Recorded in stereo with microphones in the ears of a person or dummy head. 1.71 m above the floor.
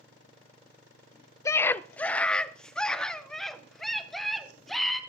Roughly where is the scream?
Centre.